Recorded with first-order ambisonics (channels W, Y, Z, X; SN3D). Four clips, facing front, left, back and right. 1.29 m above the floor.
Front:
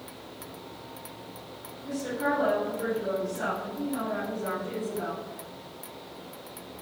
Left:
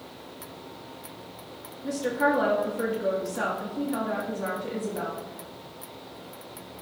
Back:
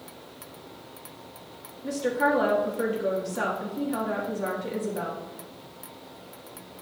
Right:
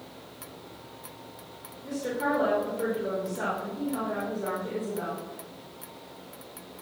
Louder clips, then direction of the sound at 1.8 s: Left 4 dB, back 5 dB; 140° left.